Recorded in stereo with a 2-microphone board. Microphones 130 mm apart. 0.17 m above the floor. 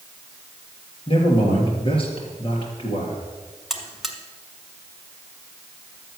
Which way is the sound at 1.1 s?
45° left (ahead or behind).